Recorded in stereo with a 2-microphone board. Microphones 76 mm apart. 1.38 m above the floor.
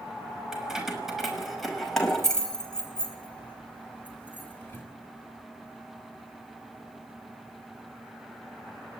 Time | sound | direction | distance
0.5 | keys jangling | 5° right (ahead or behind) | 5.5 m